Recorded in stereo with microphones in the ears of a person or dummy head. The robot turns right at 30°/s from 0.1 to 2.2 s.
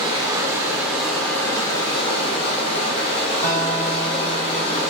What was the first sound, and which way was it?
Running water, 25° right.